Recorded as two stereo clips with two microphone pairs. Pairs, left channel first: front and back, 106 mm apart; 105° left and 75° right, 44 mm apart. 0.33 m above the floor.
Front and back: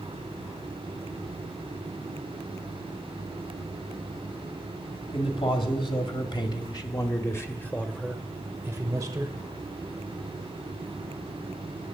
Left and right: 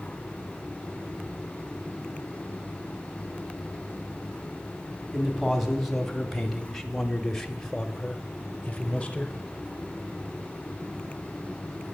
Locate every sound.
5.1 s a man speaking: 10° left, 1.8 m; by 9.3 s 160° left, 1.0 m